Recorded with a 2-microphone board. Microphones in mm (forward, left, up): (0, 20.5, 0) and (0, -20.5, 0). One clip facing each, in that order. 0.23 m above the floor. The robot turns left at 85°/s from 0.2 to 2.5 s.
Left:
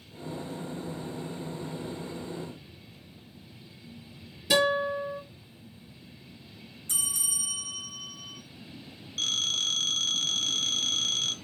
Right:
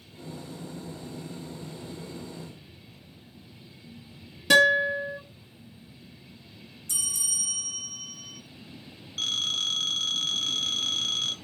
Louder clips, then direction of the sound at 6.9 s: Right 1 dB; 30° left (ahead or behind).